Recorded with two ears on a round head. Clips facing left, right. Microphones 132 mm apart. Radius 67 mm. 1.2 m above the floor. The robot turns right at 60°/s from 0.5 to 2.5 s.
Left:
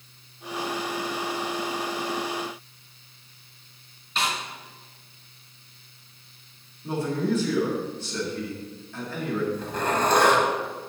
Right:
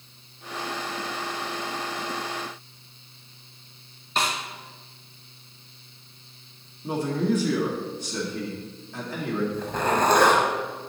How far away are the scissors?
No scissors in this recording.